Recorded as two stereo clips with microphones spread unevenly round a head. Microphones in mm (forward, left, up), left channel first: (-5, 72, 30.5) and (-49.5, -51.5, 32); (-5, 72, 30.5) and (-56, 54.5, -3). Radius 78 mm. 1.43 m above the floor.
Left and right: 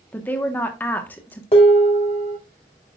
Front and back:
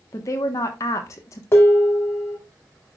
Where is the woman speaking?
10° right, 1.0 m.